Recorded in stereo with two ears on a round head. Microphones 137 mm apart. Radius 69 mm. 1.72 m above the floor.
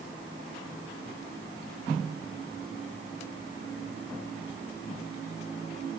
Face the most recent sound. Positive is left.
No sound to turn to.